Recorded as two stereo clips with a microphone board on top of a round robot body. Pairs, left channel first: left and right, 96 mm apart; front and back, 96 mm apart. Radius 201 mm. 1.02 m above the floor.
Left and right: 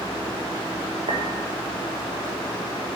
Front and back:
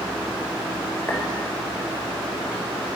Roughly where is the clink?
Ahead right.